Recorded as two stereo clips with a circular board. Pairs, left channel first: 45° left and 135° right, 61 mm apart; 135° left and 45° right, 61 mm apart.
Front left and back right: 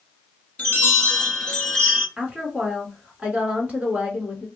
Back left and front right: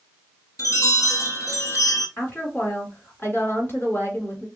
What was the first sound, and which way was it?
A chime, 110° left.